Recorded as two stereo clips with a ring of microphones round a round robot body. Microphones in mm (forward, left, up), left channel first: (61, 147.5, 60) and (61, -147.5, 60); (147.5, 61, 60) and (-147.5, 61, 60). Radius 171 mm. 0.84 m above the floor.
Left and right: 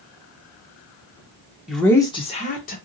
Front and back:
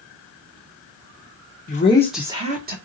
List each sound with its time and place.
1.7 s a woman speaking: straight ahead, 0.7 m; by 2.8 s 140° left, 0.9 m